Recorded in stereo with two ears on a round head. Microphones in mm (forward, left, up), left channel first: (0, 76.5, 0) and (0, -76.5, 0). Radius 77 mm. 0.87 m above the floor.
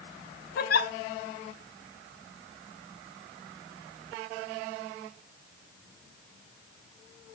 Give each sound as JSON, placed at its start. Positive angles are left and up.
{"t": 0.6, "sound": "a giggle", "side_deg": 60, "distance_m": 1.0}